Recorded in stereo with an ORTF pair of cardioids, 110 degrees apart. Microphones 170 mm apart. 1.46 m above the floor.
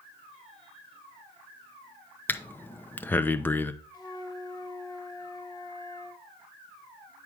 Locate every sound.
2.3 s breathing: 10° left, 0.7 m
3.9 s a flute: 25° left, 1.5 m